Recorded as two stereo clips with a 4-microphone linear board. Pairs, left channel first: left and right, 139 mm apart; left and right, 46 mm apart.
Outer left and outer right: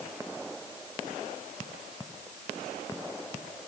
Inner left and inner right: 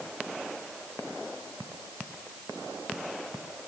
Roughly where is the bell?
I don't hear a bell.